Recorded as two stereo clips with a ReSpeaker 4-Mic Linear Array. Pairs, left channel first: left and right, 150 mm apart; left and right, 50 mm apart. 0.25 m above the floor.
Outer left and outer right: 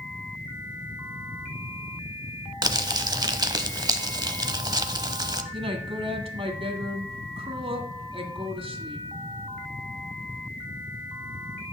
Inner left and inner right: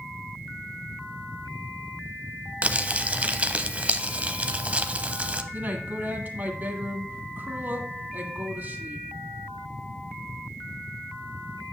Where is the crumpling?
30° right (ahead or behind), 0.6 m.